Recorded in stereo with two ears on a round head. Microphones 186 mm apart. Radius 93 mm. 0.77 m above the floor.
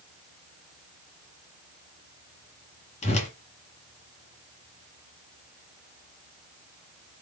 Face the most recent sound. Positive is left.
turn(degrees=35)  # may be behind; listen again after turning